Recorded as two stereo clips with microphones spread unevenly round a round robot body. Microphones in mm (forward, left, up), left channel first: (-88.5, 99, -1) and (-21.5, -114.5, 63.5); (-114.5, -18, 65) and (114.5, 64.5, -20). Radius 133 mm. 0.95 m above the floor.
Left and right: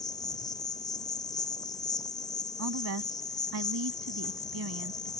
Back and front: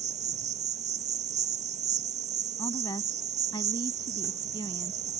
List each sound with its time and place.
0.0 s an insect: 50° left
2.6 s a woman speaking: 85° right